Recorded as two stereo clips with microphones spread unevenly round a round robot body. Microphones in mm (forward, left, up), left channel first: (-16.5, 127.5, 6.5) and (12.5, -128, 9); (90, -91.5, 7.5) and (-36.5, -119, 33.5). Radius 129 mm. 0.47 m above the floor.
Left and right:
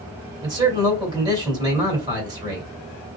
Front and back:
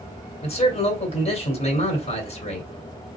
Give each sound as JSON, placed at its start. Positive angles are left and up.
{"t": 0.4, "sound": "a man speaking", "azimuth_deg": -10, "distance_m": 2.5}